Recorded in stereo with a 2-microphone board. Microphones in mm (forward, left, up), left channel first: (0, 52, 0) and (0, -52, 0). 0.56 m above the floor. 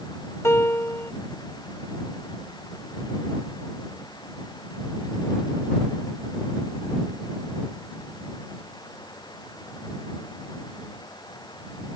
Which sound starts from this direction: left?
A piano, at 0.4 s.